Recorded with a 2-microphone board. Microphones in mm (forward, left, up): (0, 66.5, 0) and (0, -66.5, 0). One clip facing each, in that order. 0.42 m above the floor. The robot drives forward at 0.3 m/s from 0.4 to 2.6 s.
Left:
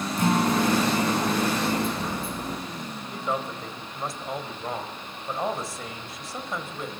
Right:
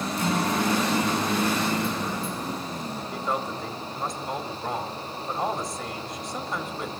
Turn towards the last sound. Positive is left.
turn(degrees=0)  # may be behind; listen again after turning